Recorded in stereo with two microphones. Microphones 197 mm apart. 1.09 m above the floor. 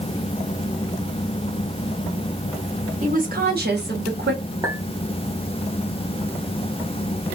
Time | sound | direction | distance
3.0 | a woman speaking | 40° right (ahead or behind) | 1.3 m
4.6 | a clink | 15° right (ahead or behind) | 1.6 m